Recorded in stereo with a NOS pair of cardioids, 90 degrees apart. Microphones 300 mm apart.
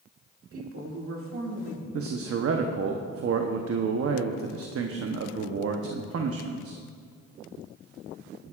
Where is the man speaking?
50° right, 0.9 m.